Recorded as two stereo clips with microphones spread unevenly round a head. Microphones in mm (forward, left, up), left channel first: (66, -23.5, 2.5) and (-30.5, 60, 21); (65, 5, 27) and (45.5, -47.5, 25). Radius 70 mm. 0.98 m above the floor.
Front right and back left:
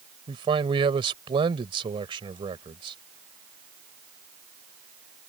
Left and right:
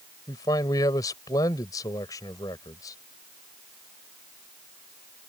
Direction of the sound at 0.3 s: 90° left.